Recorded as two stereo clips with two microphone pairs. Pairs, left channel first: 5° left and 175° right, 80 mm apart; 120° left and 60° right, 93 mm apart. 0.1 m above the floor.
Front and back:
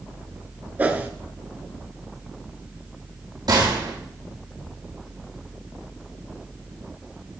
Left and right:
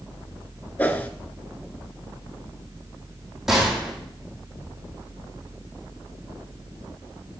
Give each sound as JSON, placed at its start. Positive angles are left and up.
{"t": 0.8, "sound": "a whoosh", "azimuth_deg": 155, "distance_m": 0.7}
{"t": 3.5, "sound": "a gunshot", "azimuth_deg": -150, "distance_m": 3.5}